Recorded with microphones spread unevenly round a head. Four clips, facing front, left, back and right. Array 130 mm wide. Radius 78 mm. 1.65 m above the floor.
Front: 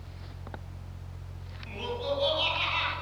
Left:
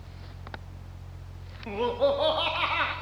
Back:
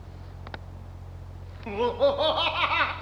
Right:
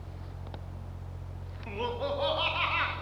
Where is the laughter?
135° left, 3 m; by 2.9 s 150° left, 3.5 m.